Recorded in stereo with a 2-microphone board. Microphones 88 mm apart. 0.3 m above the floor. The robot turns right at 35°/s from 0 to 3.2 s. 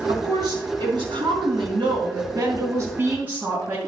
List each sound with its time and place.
0.1 s a woman speaking: 130° right, 4 m; by 3.8 s 20° right, 4 m